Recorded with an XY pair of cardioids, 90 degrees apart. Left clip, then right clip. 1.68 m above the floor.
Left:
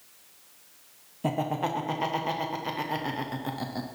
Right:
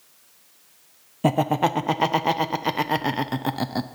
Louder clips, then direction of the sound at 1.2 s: Right 8 dB; 65° right.